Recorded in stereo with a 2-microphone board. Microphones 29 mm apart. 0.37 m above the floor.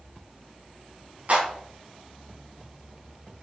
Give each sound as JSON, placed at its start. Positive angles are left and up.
{"t": 1.3, "sound": "a clap", "side_deg": -45, "distance_m": 3.5}